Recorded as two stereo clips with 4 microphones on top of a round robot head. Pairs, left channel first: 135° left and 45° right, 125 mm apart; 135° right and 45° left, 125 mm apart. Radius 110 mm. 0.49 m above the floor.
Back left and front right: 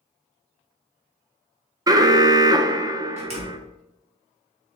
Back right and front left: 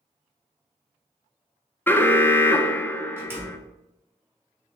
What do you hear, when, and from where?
1.9 s an alarm: 70° right, 0.5 m
3.2 s a door slam: 25° right, 1.6 m